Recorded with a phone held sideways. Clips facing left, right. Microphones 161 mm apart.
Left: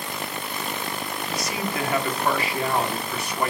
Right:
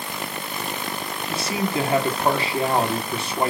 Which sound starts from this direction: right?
A man speaking, at 1.3 s.